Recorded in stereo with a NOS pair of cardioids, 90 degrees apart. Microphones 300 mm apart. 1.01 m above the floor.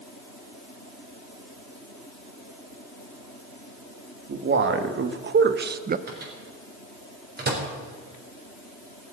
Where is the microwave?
35° right, 4 m.